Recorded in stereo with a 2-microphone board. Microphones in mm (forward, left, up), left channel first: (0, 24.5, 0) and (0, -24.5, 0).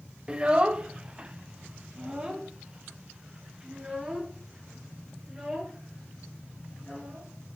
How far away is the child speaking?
About 0.8 m.